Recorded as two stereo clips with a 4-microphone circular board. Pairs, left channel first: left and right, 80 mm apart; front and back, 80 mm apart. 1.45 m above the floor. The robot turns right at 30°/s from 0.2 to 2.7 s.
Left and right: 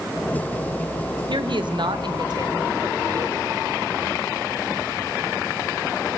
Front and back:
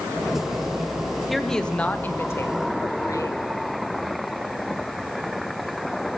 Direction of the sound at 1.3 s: 90° right.